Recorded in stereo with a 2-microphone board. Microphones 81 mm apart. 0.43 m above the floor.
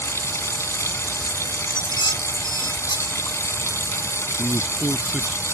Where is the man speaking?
20° right (ahead or behind).